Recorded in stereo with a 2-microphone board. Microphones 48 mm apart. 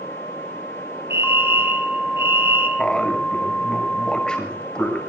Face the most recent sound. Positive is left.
turn(degrees=15)  # may be behind; listen again after turning